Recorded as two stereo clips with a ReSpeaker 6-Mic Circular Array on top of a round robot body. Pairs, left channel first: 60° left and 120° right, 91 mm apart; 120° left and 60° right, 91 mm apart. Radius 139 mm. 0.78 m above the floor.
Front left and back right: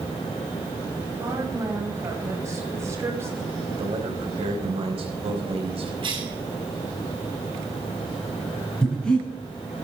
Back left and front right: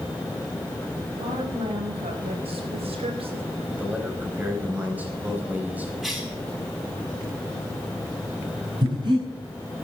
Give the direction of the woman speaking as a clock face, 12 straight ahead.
2 o'clock.